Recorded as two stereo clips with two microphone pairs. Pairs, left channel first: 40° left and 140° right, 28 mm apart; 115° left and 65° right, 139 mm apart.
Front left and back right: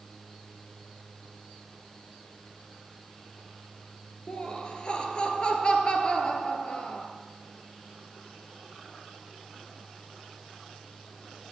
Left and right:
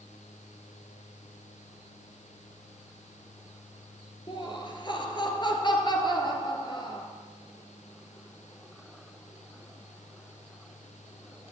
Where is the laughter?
75° left, 1.7 m.